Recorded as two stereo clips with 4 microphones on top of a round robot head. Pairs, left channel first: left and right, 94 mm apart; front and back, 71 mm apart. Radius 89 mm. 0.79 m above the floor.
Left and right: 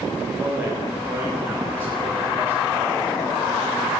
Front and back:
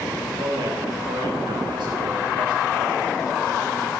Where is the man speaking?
160° right, 5.5 m.